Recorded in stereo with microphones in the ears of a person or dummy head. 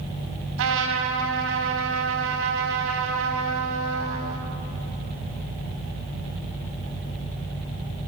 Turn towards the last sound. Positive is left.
turn(degrees=-80)